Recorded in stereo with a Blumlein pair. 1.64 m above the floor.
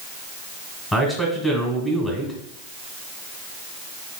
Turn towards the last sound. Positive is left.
turn(degrees=10)